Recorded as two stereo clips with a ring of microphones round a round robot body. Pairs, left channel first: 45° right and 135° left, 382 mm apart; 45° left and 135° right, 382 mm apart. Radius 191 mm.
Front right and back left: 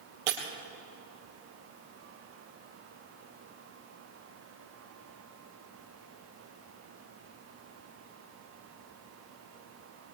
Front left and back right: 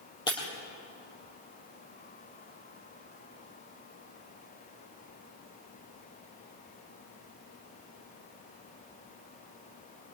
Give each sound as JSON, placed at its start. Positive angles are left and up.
{"t": 0.3, "sound": "breaking glass", "azimuth_deg": 125, "distance_m": 4.5}